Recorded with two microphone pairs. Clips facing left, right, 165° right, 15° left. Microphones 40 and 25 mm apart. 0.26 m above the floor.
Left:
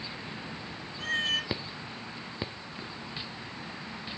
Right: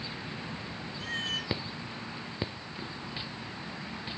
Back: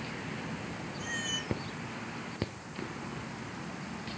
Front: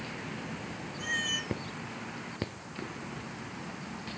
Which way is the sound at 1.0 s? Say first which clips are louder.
Left 5 dB, front 4 dB; 85° left.